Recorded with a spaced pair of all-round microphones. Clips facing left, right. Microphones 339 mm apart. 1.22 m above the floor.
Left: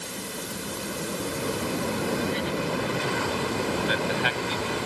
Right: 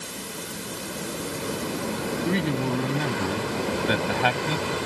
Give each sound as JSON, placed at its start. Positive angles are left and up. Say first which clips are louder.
{"t": 2.2, "sound": "a man speaking", "louder": "right 3 dB", "side_deg": -70}